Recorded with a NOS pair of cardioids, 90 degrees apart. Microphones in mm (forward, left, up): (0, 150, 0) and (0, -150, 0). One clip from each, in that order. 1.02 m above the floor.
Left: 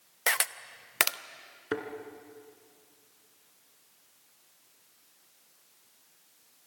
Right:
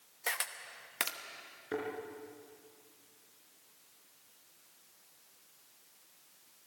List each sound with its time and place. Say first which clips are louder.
0.3 s a camera shutter: left 8 dB; 40° left, 0.8 m
1.7 s a thud: left 4 dB; 65° left, 2.5 m